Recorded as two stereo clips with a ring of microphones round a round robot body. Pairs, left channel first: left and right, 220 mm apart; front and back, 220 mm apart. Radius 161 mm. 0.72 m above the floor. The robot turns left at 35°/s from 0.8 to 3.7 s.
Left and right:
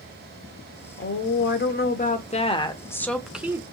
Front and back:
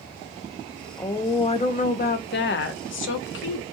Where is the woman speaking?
80° left, 0.8 m; by 3.6 s 15° right, 0.8 m.